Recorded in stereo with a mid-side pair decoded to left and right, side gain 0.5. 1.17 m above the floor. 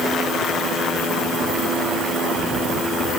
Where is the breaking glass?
No breaking glass in this recording.